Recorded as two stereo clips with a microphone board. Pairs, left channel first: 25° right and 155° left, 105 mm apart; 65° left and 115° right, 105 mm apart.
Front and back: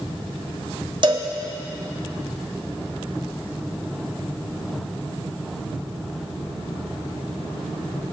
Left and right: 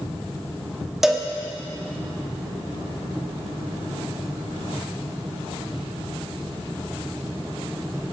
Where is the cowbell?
160° left, 1.4 m.